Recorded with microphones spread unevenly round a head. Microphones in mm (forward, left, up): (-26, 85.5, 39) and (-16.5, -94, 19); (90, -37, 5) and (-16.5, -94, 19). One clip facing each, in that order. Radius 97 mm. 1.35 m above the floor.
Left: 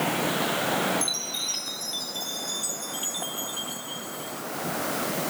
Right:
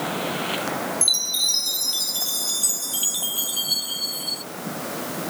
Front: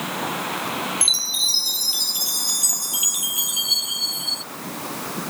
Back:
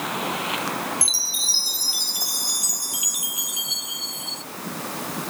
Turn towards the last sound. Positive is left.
turn(degrees=-40)